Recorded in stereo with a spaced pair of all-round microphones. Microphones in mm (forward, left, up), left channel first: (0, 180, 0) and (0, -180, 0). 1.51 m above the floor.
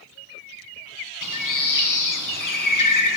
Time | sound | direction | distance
1.2 | a bird | 60° left (ahead or behind) | 1.0 m